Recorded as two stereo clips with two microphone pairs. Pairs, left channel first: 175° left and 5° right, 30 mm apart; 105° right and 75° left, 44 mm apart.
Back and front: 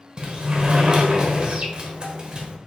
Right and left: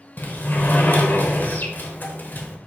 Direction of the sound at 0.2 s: 60° right.